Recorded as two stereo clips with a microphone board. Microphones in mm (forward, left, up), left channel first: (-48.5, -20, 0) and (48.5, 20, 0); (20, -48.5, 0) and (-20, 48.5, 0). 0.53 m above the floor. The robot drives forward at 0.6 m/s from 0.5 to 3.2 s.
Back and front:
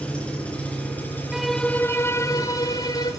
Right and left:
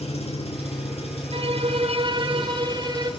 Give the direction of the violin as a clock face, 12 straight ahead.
8 o'clock.